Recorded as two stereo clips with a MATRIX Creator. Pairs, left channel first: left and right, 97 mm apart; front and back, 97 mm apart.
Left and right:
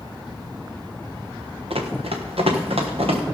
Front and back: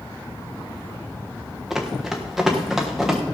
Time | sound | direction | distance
1.7 | running footsteps | 95° right | 2.5 m